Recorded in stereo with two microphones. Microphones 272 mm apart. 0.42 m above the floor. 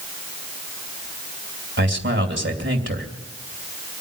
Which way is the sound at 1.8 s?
45° right (ahead or behind).